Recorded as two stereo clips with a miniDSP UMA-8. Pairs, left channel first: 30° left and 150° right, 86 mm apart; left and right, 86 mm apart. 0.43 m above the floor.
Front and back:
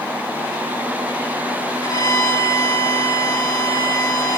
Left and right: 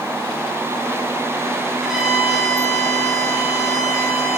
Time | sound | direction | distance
1.8 | a violin | 5° right | 7.5 m